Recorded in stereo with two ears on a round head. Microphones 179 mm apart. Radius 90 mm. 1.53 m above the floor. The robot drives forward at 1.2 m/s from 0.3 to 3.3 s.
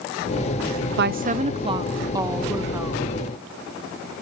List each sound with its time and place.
1.0 s a woman speaking: 60° right (ahead or behind), 0.7 m; by 3.2 s 10° right (ahead or behind), 3 m